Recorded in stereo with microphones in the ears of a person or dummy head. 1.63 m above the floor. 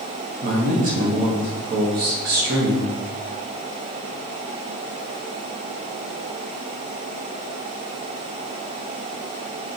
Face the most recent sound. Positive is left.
turn(degrees=-45)  # may be behind; listen again after turning